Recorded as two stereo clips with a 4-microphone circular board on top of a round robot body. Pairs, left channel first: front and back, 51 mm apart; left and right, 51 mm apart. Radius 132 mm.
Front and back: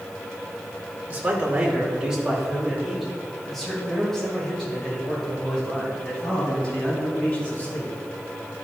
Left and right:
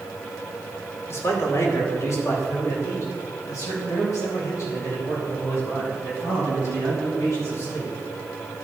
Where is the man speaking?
120° left, 2.5 m; by 7.9 s 70° left, 6 m.